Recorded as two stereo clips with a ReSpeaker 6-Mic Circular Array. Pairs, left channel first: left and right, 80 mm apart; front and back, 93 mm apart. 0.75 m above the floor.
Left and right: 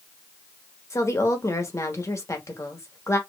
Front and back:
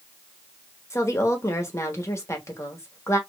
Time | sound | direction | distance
0.9 | a woman speaking | 50° left | 1.2 m